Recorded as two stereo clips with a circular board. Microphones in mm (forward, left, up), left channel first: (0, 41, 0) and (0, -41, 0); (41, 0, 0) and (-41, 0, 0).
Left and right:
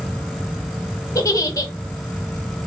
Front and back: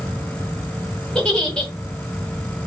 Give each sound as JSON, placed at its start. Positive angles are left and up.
{"t": 1.1, "sound": "a giggle", "azimuth_deg": 75, "distance_m": 1.4}